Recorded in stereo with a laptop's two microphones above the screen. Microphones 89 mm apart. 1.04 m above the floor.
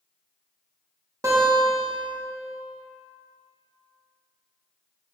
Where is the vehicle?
No vehicle in this recording.